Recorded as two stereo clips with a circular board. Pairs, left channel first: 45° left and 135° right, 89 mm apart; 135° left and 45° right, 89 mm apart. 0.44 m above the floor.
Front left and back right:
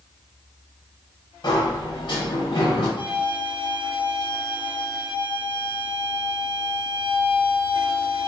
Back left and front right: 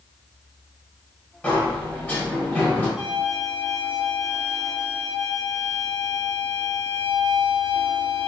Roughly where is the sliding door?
Ahead left.